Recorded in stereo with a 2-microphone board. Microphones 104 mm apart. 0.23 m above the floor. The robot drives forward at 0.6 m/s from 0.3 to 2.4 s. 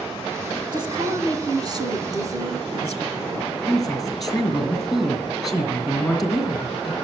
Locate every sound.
0.7 s a woman speaking: 45° right (ahead or behind), 2.5 m; by 3.4 s 30° right (ahead or behind), 3 m
3.5 s a woman speaking: centre (ahead or behind), 4 m